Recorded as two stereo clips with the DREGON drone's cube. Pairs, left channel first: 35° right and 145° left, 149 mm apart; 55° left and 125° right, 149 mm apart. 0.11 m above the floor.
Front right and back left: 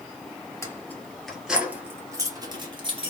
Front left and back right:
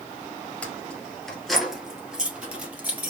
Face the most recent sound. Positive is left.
turn(degrees=165)